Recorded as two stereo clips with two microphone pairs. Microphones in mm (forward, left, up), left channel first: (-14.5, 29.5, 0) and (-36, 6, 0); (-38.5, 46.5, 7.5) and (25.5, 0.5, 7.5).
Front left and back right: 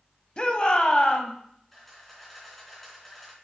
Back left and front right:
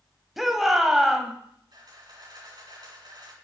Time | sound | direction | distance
0.4 | a shout | 50° left | 1.0 m
1.7 | a camera shutter | 40° right | 3 m